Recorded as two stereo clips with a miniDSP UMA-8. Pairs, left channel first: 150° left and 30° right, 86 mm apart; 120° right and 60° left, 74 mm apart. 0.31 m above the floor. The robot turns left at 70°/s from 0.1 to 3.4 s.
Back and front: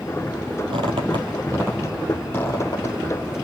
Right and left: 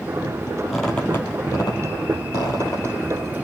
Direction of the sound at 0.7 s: 25° right.